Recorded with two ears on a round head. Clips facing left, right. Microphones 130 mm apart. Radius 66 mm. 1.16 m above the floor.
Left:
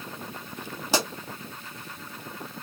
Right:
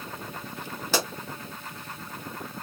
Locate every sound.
0.9 s a pop: 15° left (ahead or behind), 1.9 m